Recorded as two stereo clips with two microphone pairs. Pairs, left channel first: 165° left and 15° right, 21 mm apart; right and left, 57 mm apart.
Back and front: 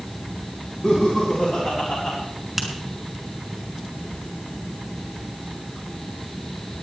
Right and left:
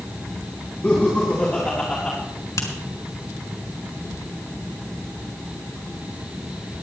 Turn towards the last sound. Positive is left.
turn(degrees=-90)